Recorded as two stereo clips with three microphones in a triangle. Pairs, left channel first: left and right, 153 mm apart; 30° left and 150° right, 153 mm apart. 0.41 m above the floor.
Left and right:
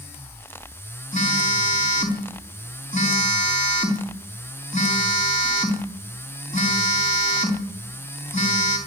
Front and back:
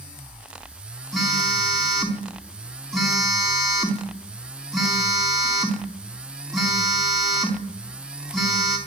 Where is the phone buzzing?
120° left, 4 m.